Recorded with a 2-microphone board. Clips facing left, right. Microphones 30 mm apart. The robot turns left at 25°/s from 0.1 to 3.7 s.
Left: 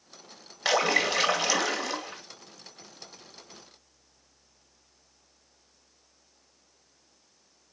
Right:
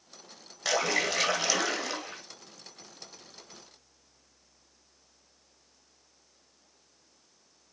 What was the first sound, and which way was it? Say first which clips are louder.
A splash: left 4 dB; 35° left.